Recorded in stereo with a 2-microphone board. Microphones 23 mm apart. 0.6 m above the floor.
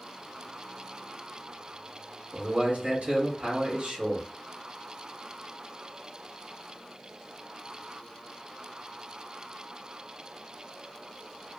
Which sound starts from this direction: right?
A man speaking, at 2.3 s.